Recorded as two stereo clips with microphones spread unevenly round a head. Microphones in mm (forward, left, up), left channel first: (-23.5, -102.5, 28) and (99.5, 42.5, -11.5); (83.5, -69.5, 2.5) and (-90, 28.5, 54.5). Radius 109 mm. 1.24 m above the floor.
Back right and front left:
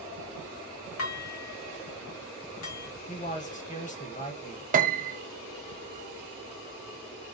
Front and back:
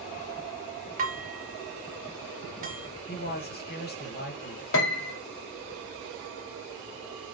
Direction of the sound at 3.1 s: 75° right.